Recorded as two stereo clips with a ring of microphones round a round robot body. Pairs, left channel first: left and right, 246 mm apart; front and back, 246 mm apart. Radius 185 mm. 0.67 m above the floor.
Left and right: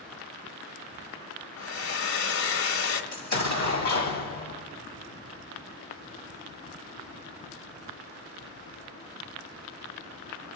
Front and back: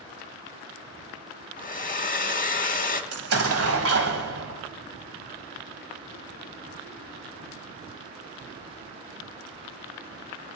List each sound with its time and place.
1.6 s a hair dryer: 60° left, 1.4 m
3.1 s an explosion: 155° left, 1.5 m